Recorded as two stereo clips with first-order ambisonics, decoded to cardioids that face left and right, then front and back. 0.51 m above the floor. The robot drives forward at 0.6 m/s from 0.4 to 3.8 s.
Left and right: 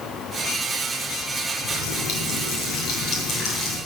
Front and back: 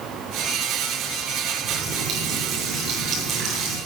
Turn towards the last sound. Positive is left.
turn(degrees=130)